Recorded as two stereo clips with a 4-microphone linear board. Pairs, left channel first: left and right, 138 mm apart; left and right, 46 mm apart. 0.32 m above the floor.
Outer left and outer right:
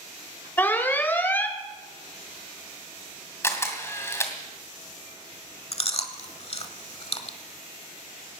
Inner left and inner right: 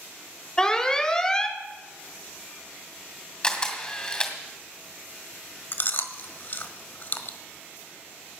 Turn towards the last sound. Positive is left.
turn(degrees=45)  # may be behind; listen again after turning